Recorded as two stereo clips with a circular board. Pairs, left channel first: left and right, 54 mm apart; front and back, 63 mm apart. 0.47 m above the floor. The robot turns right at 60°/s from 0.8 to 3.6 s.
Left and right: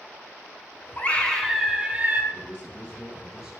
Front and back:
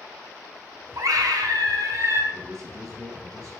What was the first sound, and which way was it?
A scream, 150° left.